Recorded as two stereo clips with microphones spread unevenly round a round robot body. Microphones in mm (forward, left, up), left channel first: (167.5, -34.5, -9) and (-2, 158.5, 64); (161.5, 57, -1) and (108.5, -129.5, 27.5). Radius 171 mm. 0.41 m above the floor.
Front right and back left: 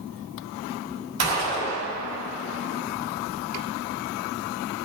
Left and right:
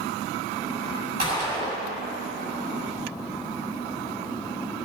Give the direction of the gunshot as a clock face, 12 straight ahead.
6 o'clock.